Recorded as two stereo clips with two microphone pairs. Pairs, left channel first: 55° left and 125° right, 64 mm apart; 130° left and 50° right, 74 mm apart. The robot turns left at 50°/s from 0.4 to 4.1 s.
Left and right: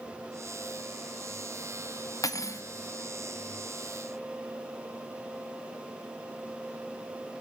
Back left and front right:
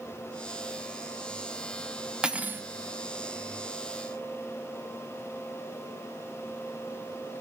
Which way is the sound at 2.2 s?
35° left.